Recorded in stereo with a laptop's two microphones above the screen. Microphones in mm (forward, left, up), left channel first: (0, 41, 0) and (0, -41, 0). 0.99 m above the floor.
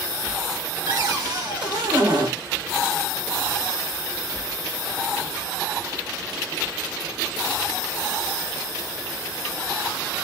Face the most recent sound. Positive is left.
turn(degrees=-60)  # may be behind; listen again after turning